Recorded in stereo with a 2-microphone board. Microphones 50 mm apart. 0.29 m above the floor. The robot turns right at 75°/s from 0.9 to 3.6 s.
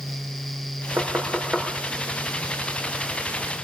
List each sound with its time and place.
1.0 s knocking: 60° right (ahead or behind), 4.5 m; by 1.7 s 5° right (ahead or behind), 4.5 m